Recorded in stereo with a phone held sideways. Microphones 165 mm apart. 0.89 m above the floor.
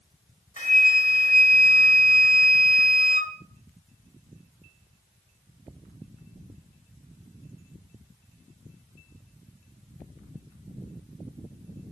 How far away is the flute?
About 1.0 m.